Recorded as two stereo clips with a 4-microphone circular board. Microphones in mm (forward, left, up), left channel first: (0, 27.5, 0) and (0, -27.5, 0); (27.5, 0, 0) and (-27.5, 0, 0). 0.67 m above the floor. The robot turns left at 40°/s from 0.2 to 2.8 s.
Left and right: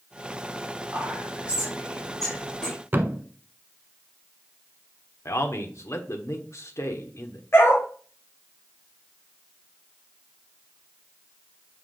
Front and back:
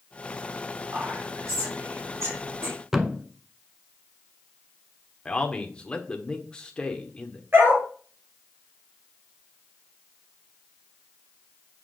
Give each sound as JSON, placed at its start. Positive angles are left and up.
{"t": 0.9, "sound": "whispering", "azimuth_deg": -130, "distance_m": 2.0}
{"t": 2.9, "sound": "a thud", "azimuth_deg": -105, "distance_m": 0.7}
{"t": 5.2, "sound": "a man speaking", "azimuth_deg": 70, "distance_m": 1.4}
{"t": 7.5, "sound": "a dog barking", "azimuth_deg": 135, "distance_m": 2.5}